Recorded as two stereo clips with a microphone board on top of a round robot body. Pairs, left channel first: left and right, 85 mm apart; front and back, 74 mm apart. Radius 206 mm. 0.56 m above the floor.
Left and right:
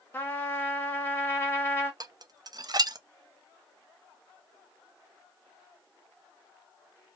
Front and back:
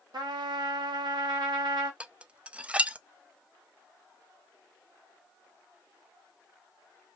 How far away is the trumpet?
About 1.0 m.